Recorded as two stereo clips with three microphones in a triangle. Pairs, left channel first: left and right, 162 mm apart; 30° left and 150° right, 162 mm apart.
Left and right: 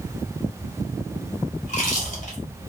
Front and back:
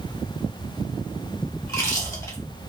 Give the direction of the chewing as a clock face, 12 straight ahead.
9 o'clock.